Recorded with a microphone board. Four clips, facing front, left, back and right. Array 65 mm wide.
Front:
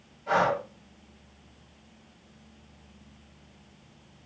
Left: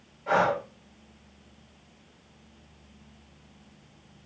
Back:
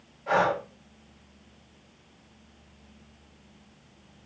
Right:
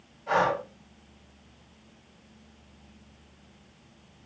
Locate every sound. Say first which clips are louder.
0.3 s breathing: left 1 dB, even; 125° left, 2.5 m